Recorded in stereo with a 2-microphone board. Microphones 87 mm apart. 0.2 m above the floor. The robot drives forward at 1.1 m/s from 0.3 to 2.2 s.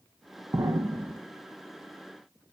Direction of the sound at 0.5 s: 35° right (ahead or behind).